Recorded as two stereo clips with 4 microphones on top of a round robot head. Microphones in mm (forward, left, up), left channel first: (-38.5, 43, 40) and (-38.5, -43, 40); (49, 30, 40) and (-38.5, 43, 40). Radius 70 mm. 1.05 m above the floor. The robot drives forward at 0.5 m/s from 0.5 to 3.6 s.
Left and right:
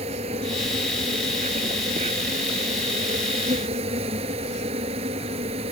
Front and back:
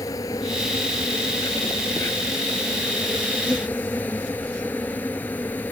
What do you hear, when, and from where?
0.0 s an insect: 70° right; by 5.7 s 85° right